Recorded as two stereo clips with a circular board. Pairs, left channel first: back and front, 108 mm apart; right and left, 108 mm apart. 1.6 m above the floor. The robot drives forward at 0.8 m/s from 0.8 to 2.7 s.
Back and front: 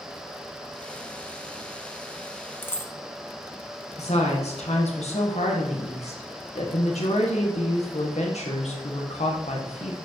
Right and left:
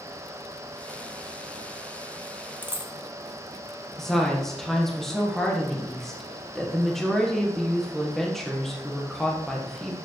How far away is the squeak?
No squeak in this recording.